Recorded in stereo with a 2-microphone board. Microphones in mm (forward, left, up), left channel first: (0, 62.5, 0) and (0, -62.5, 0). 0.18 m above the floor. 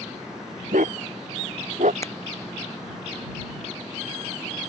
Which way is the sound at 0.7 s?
85° right.